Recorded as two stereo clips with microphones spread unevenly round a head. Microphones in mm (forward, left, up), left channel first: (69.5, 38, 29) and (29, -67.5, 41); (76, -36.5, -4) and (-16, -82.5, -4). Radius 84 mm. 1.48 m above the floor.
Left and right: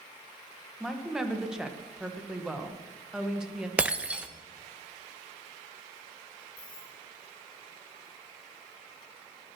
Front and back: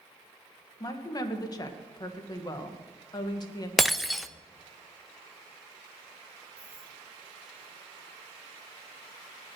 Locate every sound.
0.8 s a woman speaking: 25° right, 1.8 m
3.8 s breaking glass: 65° right, 0.6 m
6.6 s keys jangling: 130° left, 5 m